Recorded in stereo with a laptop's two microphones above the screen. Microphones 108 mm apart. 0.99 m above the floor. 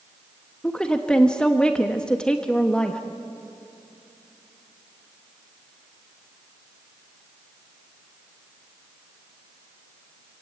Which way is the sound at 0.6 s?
10° left (ahead or behind).